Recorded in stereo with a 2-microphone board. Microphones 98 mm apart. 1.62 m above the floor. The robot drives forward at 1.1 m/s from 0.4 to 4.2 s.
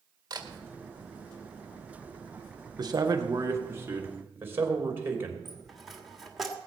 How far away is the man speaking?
About 1.6 m.